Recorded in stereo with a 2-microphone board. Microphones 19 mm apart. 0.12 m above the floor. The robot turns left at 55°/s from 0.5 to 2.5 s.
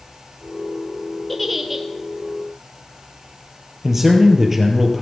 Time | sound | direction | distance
1.3 | a giggle | 5° left | 1.2 m
3.8 | a man speaking | 15° right (ahead or behind) | 2.5 m